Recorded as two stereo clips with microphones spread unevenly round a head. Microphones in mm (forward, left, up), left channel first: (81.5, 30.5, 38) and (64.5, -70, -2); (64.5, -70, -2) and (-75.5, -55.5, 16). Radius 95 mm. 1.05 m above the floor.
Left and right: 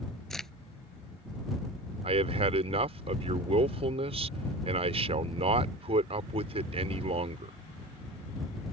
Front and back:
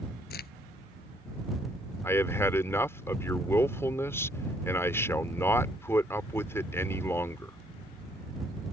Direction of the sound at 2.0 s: 80° right.